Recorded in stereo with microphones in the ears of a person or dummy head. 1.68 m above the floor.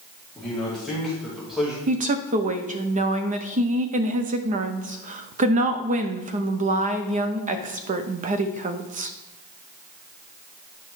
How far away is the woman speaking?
About 0.6 m.